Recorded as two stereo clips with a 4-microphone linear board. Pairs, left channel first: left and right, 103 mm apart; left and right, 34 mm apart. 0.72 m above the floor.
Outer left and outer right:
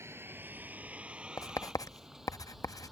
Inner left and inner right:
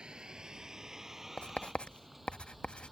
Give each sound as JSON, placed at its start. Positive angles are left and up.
{"t": 0.0, "sound": "a vehicle", "side_deg": -25}
{"t": 1.4, "sound": "writing", "side_deg": 35}